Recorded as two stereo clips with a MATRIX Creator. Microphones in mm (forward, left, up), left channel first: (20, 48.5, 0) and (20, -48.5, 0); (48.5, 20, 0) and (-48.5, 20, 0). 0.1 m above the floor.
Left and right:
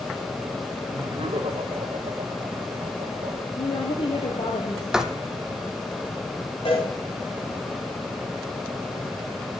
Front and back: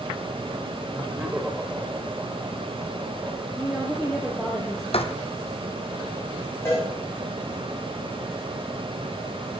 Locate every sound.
0.9 s laughter: 105° right, 7 m
3.6 s a woman speaking: 90° left, 4 m
4.9 s writing: 5° right, 1.2 m
6.7 s a cowbell: 65° left, 9.5 m